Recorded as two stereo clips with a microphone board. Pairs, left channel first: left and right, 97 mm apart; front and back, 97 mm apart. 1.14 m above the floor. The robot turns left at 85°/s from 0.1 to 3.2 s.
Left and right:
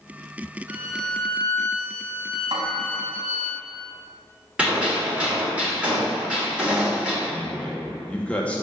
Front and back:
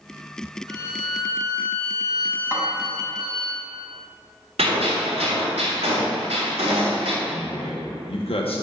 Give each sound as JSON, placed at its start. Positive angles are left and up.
{"t": 0.7, "sound": "a violin", "azimuth_deg": -145, "distance_m": 2.0}
{"t": 2.5, "sound": "a snare drum", "azimuth_deg": -85, "distance_m": 2.5}
{"t": 4.6, "sound": "a gunshot", "azimuth_deg": -170, "distance_m": 3.0}
{"t": 7.2, "sound": "a man speaking", "azimuth_deg": 15, "distance_m": 1.0}